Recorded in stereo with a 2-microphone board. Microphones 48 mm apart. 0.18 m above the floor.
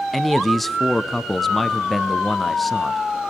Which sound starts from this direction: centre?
A man speaking, at 0.1 s.